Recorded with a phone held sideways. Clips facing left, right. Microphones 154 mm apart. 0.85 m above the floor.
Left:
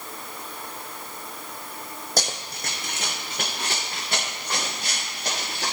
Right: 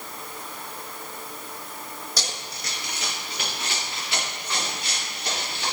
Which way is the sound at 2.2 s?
50° left (ahead or behind).